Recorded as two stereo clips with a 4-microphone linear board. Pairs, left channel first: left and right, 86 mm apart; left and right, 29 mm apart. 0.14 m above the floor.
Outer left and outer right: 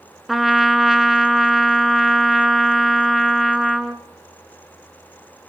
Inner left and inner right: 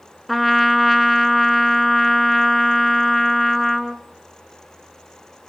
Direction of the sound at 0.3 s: Centre (ahead or behind).